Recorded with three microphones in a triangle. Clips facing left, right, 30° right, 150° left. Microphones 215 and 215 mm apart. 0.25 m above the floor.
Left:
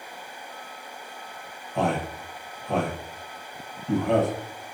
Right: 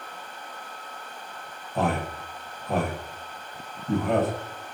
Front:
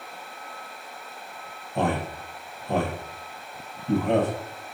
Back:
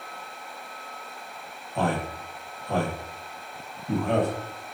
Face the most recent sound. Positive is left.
turn(degrees=-10)